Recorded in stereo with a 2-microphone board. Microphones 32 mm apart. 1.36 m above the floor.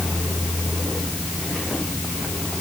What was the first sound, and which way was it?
Only background noise.